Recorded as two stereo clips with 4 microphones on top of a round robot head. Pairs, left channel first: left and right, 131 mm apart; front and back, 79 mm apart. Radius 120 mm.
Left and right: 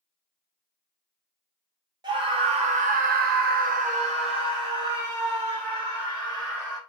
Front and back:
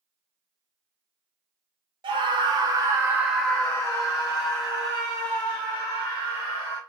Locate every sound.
2.0 s a scream: 150° right, 0.8 m; by 6.8 s 20° right, 1.9 m